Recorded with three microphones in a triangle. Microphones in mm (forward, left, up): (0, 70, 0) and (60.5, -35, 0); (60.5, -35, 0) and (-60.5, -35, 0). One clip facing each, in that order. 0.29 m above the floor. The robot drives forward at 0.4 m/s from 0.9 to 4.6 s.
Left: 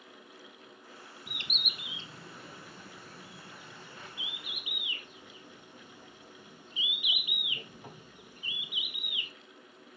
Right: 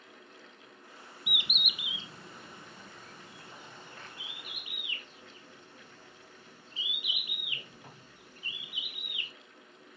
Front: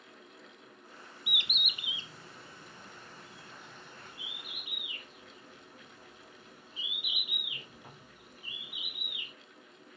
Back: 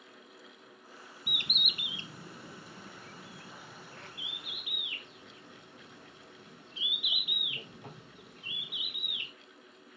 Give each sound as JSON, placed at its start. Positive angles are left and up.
{"t": 1.3, "sound": "a bird", "azimuth_deg": -135, "distance_m": 0.7}